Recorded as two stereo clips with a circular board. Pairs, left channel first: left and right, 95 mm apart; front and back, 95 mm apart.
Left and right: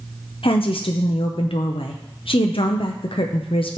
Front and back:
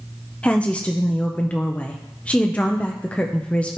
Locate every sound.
0.4 s a woman speaking: 75° left, 0.8 m